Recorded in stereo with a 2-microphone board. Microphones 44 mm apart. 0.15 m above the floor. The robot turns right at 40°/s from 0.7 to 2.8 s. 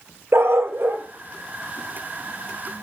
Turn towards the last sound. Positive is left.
turn(degrees=10)  # may be behind; listen again after turning